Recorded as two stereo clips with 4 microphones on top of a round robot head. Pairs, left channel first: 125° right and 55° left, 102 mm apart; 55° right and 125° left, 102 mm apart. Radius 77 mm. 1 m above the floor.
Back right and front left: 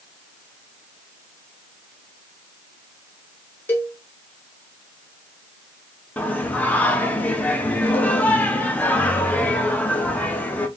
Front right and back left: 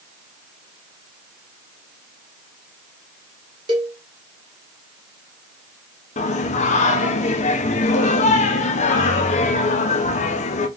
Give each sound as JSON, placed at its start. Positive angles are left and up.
{"t": 3.7, "sound": "a cowbell", "azimuth_deg": 165, "distance_m": 0.6}
{"t": 6.2, "sound": "singing", "azimuth_deg": -50, "distance_m": 0.7}